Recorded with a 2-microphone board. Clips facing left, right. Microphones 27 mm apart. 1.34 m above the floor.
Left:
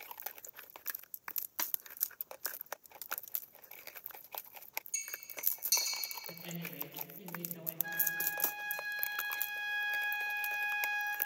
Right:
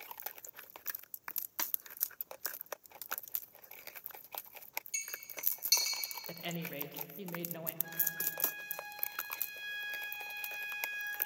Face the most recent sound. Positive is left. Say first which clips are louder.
# left 9 dB
turn(degrees=30)  # may be behind; listen again after turning